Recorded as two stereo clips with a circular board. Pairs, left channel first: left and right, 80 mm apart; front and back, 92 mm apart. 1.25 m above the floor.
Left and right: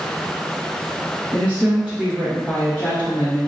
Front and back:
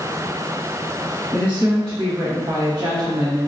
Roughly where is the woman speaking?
Behind right.